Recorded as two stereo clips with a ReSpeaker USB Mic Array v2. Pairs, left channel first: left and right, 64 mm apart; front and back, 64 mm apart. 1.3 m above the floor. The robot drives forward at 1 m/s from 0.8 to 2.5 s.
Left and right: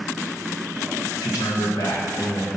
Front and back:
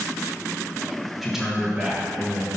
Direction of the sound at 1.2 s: 90° left.